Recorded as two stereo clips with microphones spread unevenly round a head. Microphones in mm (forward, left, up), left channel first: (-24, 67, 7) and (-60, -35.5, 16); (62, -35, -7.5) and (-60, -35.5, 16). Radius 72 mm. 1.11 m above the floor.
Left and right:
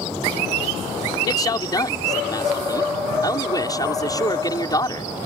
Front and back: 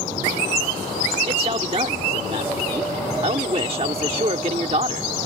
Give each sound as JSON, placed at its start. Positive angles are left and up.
{"t": 1.3, "sound": "a man speaking", "azimuth_deg": 125}